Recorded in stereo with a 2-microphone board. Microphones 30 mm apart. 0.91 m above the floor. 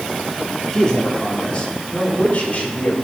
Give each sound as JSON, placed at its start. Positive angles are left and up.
{"t": 0.7, "sound": "a man speaking", "side_deg": 20, "distance_m": 2.0}